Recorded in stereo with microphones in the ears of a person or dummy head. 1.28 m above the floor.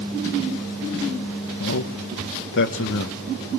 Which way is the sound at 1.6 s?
60° left (ahead or behind).